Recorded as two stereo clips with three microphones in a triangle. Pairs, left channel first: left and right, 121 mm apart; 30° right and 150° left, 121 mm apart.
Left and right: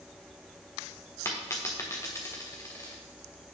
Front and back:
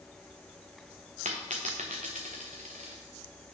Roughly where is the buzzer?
I don't hear a buzzer.